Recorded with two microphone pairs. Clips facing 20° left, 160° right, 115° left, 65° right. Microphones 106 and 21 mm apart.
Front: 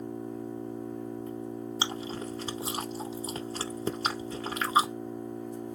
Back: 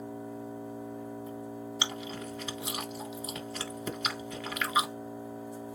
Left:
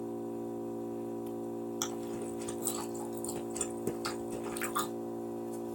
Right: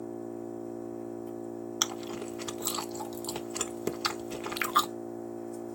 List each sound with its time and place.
0.0 s an engine running: 120° left, 2.5 m
1.8 s chewing: 35° right, 0.6 m